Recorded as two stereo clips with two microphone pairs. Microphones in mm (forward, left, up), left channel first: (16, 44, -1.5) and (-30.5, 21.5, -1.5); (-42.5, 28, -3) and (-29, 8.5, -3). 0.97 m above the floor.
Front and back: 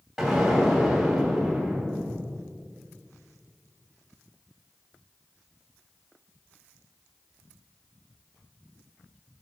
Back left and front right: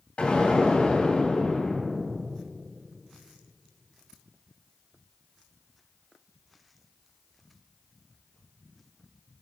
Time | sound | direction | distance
0.2 | an explosion | 115° left | 2.5 m